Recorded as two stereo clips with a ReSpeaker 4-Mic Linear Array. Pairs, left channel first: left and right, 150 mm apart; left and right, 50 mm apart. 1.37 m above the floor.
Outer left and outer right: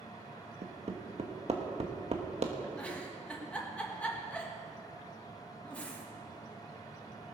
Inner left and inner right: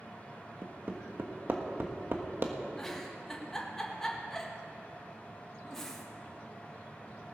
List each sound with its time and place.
0.6 s hammering: 50° right (ahead or behind), 1.3 m
2.8 s a giggle: 10° left (ahead or behind), 1.6 m